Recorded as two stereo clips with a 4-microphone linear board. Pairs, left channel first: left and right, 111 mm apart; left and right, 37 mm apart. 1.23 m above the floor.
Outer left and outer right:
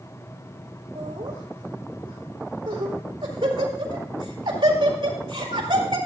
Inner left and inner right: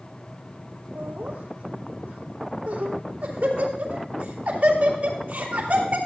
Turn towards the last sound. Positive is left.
turn(degrees=-50)  # may be behind; listen again after turning